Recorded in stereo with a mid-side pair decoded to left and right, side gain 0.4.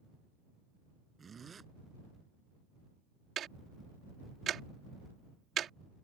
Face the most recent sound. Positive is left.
turn(degrees=-65)